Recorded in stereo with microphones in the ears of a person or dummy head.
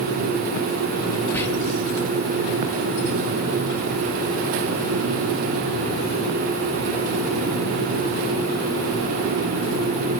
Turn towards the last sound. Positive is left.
turn(degrees=10)  # may be behind; listen again after turning